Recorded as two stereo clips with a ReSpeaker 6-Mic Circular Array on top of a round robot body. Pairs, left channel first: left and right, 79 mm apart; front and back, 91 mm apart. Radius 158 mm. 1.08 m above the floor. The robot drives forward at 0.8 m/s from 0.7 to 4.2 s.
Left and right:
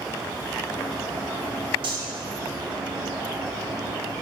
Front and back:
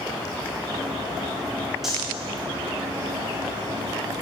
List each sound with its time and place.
1.8 s cutlery clinking: 95° right, 0.7 m; by 2.0 s 105° right, 0.7 m